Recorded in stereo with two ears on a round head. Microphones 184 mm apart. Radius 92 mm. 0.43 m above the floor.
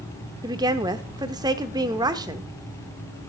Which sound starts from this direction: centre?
A woman speaking, at 0.4 s.